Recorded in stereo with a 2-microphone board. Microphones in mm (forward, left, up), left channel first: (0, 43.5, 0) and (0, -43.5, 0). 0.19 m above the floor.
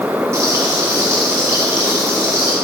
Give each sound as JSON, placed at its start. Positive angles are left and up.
{"t": 0.3, "sound": "frying", "side_deg": -30, "distance_m": 2.0}